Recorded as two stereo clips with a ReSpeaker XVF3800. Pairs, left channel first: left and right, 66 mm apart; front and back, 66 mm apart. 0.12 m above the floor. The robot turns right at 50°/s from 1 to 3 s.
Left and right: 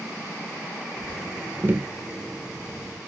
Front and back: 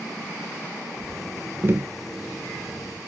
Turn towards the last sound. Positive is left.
turn(degrees=-70)